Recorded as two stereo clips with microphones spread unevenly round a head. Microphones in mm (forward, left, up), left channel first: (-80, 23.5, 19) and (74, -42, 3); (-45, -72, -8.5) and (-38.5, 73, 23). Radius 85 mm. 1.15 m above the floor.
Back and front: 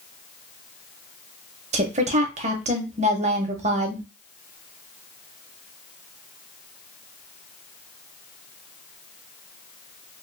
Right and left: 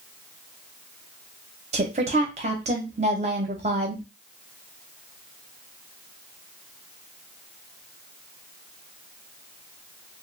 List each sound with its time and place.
1.7 s a woman speaking: 30° left, 0.7 m